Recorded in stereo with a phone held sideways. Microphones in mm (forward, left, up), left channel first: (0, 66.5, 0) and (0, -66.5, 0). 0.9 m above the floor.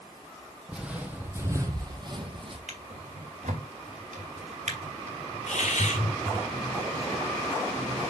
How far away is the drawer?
About 2.5 m.